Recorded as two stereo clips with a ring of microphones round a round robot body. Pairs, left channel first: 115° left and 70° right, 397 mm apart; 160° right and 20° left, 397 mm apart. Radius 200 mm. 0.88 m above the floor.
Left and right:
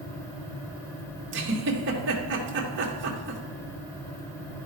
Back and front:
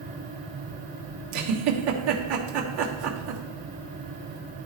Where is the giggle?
5° right, 1.6 m.